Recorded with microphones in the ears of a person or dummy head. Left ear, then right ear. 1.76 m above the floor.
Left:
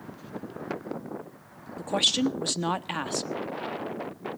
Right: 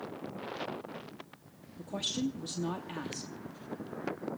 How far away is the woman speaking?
About 0.8 m.